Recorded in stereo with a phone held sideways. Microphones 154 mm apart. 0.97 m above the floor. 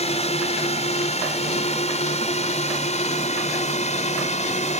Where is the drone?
45° left (ahead or behind).